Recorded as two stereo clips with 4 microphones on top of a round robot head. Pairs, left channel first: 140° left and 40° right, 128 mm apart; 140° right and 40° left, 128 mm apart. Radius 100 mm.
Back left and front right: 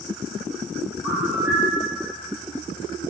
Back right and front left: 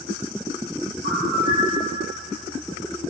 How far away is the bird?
About 2.5 m.